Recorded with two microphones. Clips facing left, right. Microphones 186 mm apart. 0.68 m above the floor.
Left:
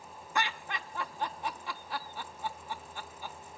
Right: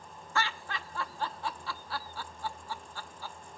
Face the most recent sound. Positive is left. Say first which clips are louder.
# even
turn(degrees=20)  # may be behind; listen again after turning